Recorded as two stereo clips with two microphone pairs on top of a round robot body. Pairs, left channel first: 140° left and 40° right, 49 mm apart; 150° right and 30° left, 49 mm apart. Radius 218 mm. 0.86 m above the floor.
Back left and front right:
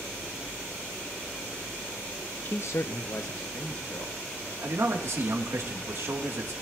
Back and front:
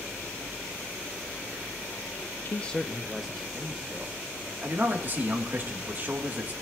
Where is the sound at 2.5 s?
175° left, 0.6 m; by 4.2 s 105° left, 2 m.